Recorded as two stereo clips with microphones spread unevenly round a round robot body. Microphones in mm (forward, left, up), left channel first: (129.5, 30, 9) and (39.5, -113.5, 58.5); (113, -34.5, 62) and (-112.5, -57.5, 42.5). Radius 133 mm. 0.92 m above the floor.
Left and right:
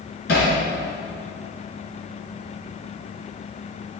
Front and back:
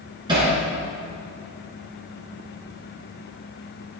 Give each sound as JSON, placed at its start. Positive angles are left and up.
{"t": 0.3, "sound": "hammering", "azimuth_deg": 110, "distance_m": 3.5}